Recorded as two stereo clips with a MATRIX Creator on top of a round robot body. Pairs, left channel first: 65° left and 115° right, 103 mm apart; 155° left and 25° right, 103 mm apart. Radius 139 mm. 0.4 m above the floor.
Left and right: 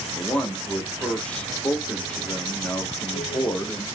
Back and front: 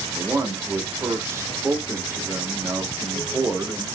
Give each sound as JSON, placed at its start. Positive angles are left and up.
{"t": 0.1, "sound": "a man speaking", "azimuth_deg": 0, "distance_m": 1.1}